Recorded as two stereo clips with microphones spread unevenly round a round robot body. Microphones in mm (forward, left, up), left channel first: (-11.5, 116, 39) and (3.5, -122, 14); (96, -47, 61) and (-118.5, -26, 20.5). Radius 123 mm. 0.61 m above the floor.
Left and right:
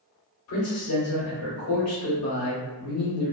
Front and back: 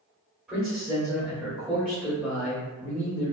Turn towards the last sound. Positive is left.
turn(degrees=100)